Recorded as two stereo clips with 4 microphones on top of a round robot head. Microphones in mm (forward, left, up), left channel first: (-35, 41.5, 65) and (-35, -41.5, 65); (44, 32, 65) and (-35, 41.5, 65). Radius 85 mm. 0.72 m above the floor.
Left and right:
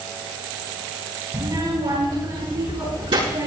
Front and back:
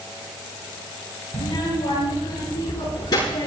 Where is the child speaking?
40° right, 9.5 m; by 3.5 s 60° right, 8.5 m.